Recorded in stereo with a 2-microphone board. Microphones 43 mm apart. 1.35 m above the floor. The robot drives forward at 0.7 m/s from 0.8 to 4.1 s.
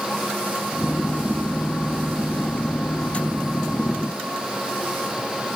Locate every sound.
Only background noise.